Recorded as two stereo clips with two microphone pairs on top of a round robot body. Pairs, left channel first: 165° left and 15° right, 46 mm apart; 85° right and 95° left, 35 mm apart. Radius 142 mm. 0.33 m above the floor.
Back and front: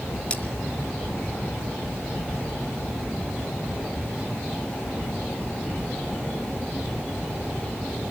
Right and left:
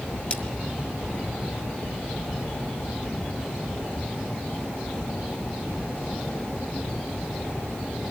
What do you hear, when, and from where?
0.3 s cutlery clinking: 135° right, 3 m